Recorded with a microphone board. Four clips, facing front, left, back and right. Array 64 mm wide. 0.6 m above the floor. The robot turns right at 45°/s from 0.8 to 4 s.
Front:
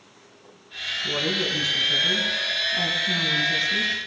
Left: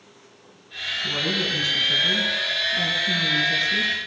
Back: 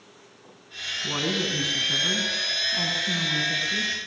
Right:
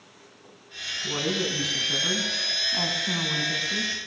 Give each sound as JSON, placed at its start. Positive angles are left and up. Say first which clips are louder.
{"t": 1.0, "sound": "a woman speaking", "louder": "left 1 dB, front 1 dB", "azimuth_deg": 180, "distance_m": 5.5}